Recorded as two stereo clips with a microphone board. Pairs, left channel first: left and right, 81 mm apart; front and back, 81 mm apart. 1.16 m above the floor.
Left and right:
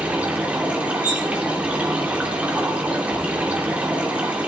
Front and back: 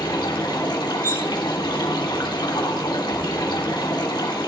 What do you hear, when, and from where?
0.0 s running water: 15° right, 2.5 m
1.0 s cutlery clinking: 55° left, 3 m